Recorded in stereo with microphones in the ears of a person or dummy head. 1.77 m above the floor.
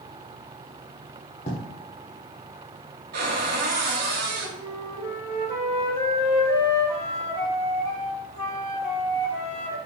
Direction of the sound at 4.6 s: 20° left (ahead or behind).